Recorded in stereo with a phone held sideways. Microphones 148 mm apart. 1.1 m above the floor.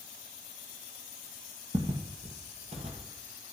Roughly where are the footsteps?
Right.